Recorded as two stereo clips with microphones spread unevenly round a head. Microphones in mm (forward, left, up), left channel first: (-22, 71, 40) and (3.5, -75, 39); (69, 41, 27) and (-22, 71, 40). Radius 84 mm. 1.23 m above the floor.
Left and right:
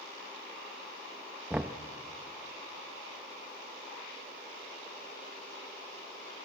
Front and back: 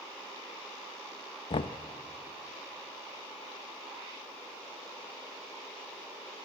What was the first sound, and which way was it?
Knocking, straight ahead.